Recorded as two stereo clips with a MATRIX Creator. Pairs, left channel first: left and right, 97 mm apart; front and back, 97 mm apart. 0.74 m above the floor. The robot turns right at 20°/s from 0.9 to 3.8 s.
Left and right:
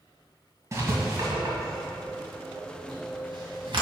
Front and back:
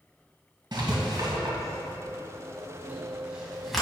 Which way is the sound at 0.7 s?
145° right.